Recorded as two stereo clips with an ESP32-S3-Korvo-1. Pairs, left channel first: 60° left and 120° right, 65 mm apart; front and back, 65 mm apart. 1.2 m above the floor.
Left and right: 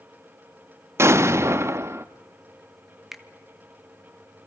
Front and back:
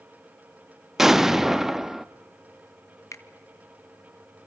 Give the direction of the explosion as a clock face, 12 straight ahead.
3 o'clock.